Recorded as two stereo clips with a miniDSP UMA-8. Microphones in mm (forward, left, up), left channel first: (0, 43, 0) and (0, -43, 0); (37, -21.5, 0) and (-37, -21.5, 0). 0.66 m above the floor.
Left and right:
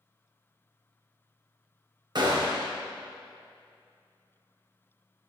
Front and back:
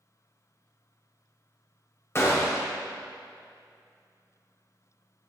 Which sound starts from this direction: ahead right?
A gunshot, at 2.1 s.